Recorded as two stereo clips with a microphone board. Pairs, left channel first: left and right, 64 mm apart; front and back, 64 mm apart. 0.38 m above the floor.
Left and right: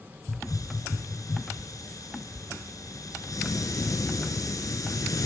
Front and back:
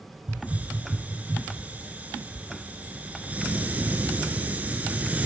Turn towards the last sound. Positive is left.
turn(degrees=115)